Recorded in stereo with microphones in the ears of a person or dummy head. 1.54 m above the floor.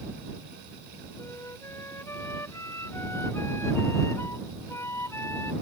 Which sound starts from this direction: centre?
A flute, at 1.2 s.